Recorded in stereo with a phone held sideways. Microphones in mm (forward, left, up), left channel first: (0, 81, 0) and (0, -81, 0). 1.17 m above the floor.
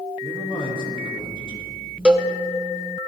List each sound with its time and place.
0.2 s a man speaking: 30° left (ahead or behind), 2 m
2.0 s a cowbell: 5° right (ahead or behind), 0.7 m